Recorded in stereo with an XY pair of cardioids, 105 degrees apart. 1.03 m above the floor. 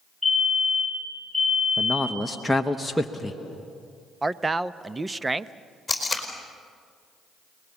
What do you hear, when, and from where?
0.2 s a fire alarm: 5° left, 4.5 m
1.8 s a man speaking: straight ahead, 0.9 m
4.2 s a man speaking: 20° right, 0.7 m
5.9 s tape being pulled: 10° left, 4.5 m